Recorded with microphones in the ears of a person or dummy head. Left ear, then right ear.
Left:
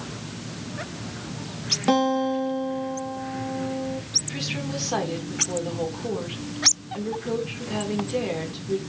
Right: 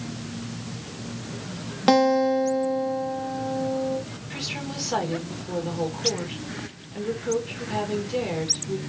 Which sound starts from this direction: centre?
A woman speaking, at 4.3 s.